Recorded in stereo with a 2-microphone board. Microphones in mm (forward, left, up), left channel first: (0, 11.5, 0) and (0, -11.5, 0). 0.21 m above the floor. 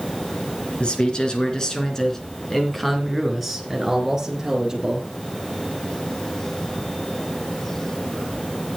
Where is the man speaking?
45° left (ahead or behind), 3.5 m; by 5.1 s 25° right (ahead or behind), 4.5 m.